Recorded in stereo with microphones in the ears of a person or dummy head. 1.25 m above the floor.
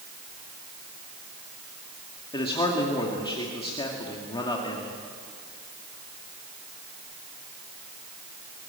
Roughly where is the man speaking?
Left.